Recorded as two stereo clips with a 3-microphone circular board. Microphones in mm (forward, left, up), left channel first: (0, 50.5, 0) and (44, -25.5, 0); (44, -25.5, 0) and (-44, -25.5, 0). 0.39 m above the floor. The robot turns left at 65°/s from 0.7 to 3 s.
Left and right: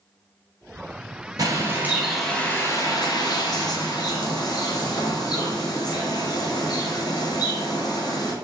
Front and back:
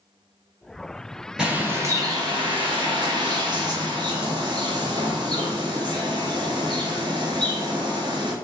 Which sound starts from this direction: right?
A bird, at 1.4 s.